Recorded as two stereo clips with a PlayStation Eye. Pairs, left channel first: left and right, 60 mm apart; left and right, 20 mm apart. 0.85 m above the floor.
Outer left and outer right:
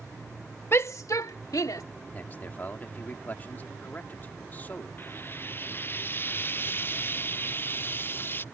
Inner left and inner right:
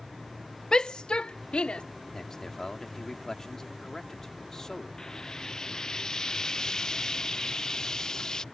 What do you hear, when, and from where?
0.7 s a shout: 40° left (ahead or behind); by 1.8 s 75° left (ahead or behind)
2.1 s a man speaking: 30° left (ahead or behind)
5.0 s frying: 35° left (ahead or behind)